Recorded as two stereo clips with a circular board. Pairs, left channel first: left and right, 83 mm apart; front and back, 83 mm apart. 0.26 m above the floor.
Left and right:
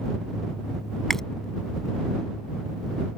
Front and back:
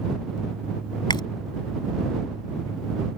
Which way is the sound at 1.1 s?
5° left.